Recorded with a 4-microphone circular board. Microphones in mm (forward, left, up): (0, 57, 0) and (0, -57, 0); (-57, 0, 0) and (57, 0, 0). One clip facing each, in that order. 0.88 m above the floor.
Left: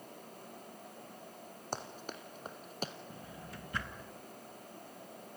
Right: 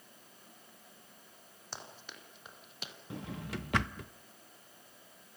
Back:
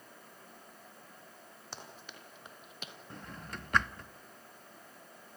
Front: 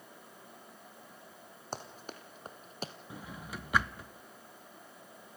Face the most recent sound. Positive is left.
turn(degrees=-85)